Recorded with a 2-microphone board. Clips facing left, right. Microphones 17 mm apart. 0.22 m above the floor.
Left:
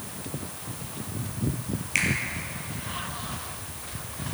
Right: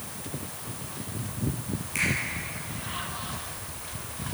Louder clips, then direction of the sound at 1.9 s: Left 2 dB; 40° left (ahead or behind).